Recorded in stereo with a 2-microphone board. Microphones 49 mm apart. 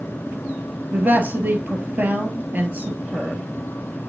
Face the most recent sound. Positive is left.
turn(degrees=-35)  # may be behind; listen again after turning